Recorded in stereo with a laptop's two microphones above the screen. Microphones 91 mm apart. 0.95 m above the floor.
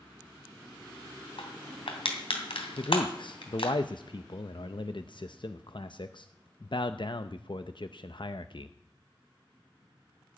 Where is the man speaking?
60° left (ahead or behind), 0.7 m.